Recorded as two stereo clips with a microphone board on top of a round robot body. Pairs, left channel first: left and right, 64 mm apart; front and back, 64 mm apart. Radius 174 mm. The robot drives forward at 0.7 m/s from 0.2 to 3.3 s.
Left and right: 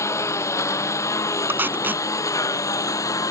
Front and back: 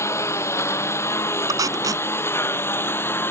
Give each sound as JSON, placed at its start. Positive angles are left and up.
{"t": 0.0, "sound": "a lawn mower", "azimuth_deg": 45}
{"t": 1.5, "sound": "tape being pulled", "azimuth_deg": -150}